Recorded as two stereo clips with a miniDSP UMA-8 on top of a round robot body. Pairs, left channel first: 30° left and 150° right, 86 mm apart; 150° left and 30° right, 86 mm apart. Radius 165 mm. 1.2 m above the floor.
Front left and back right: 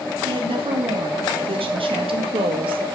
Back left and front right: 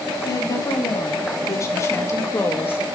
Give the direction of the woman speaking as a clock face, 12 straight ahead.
5 o'clock.